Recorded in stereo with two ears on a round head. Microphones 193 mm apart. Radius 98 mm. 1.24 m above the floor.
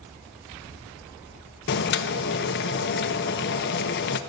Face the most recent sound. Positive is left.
turn(degrees=55)  # may be behind; listen again after turning